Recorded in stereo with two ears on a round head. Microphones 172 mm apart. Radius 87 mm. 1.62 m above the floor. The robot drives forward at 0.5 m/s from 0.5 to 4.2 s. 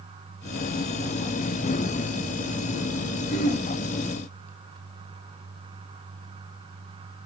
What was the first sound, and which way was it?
Throat clearing, 50° left (ahead or behind).